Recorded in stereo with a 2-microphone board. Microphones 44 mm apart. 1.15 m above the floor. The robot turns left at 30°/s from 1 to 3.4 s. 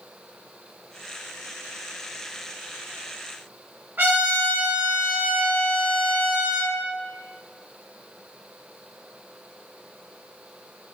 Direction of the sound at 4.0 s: 45° right (ahead or behind).